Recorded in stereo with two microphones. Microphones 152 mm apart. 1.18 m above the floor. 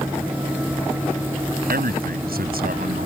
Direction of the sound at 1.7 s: 85° right.